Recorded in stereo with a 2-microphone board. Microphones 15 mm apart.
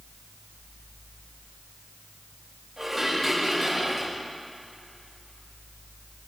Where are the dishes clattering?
10° right (ahead or behind), 7 m.